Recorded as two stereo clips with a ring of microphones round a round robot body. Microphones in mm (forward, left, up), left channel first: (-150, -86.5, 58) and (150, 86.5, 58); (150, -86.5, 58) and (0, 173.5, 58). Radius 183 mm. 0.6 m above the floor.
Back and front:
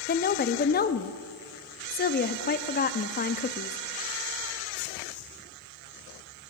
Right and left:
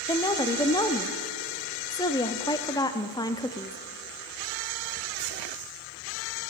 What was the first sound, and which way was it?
A woman speaking, 125° right.